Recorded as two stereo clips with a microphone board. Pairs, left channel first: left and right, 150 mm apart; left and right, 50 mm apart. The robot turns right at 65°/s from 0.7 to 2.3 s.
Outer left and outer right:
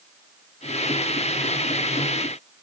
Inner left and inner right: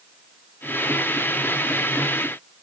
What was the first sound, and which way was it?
Only background noise.